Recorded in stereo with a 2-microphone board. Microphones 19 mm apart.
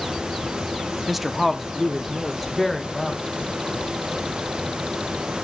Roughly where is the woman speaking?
Centre.